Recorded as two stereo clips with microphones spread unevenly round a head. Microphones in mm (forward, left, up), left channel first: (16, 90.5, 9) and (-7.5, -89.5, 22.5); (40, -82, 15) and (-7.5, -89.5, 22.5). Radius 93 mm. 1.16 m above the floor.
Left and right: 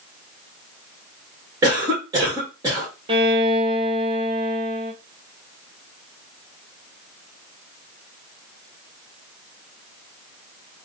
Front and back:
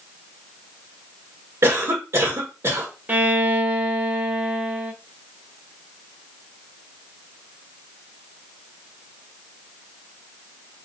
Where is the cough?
170° right, 1.3 m.